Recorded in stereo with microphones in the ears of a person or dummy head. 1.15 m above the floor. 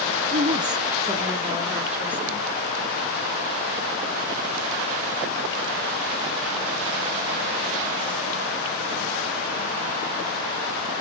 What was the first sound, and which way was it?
A woman speaking, 40° right (ahead or behind).